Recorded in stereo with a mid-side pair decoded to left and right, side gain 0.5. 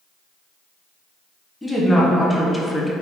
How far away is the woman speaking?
About 1.4 m.